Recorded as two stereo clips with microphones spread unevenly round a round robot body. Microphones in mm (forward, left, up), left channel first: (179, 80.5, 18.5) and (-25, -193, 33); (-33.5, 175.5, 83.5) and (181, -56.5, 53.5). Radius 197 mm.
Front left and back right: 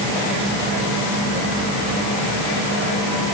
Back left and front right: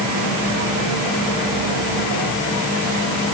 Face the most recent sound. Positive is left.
No sound to turn to.